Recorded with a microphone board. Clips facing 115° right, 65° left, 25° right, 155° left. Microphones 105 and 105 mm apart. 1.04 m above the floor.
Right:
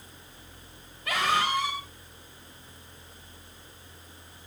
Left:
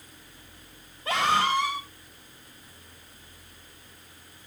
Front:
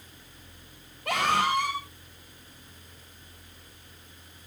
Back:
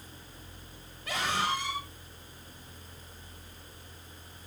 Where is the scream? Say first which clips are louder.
Left 3 dB, front 6 dB; 5° left, 5 m.